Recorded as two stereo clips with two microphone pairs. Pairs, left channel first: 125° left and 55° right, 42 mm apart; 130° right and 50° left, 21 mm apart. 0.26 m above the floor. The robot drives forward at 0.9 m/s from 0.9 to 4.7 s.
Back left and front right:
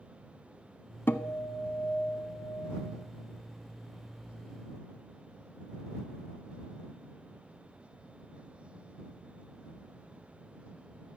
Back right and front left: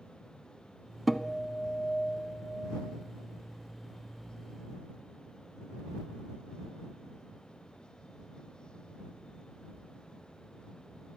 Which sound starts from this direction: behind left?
A guitar, at 1.1 s.